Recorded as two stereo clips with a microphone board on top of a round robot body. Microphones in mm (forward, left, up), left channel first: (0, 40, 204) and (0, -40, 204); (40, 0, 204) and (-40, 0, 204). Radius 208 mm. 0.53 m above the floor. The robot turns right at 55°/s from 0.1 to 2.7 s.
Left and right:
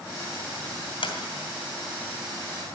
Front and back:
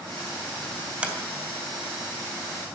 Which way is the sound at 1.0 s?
100° left.